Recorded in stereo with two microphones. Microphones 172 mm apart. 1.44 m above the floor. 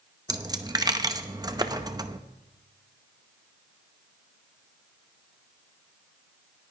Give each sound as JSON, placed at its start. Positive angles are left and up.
{"t": 0.3, "sound": "a dropped coin", "side_deg": -20, "distance_m": 0.7}
{"t": 1.6, "sound": "a clap", "side_deg": -25, "distance_m": 0.8}